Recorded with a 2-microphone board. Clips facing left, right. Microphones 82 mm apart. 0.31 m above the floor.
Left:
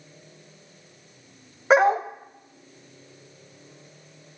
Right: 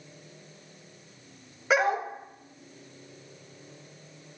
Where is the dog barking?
35° left (ahead or behind), 0.6 m.